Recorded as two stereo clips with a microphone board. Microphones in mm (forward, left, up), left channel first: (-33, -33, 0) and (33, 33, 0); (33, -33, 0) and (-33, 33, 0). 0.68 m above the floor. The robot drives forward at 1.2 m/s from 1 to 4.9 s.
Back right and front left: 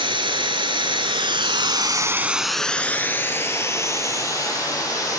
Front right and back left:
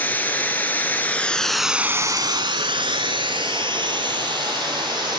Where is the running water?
25° left, 1.5 m; by 5.2 s 170° left, 3.5 m.